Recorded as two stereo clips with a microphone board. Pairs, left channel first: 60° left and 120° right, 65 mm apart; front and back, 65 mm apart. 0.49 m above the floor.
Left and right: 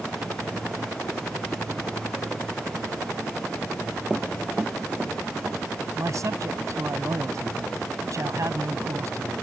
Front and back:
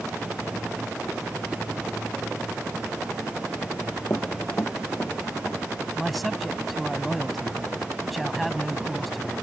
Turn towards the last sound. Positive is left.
turn(degrees=-90)